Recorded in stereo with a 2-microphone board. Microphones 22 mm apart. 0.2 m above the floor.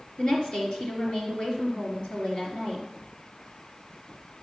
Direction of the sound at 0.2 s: 50° left (ahead or behind).